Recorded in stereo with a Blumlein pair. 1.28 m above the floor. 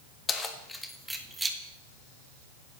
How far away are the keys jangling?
About 1.3 m.